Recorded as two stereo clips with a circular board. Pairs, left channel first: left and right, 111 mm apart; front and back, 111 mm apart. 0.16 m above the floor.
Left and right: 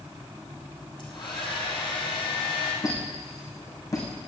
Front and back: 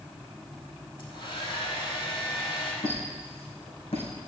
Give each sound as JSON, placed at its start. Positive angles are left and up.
{"t": 1.0, "sound": "a hair dryer", "azimuth_deg": 45, "distance_m": 5.0}
{"t": 2.8, "sound": "a squeak", "azimuth_deg": 30, "distance_m": 4.5}